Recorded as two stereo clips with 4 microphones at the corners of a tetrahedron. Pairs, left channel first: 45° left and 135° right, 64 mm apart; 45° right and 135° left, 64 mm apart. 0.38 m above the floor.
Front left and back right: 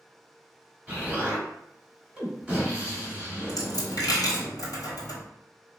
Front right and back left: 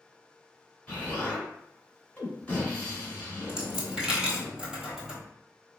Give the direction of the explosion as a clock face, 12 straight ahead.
3 o'clock.